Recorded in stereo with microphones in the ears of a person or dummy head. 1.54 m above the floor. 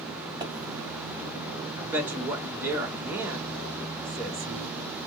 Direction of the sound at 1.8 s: 15° right (ahead or behind).